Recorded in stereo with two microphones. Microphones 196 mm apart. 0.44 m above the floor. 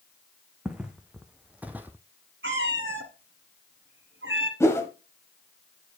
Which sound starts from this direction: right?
A cat meowing, at 2.4 s.